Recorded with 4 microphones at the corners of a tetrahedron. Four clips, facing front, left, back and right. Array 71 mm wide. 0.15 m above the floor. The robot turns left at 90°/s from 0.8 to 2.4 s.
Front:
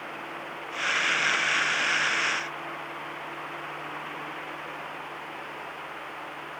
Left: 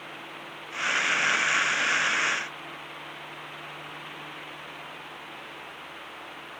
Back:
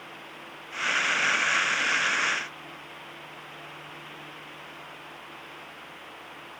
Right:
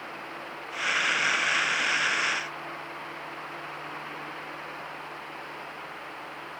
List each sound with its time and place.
Only background noise.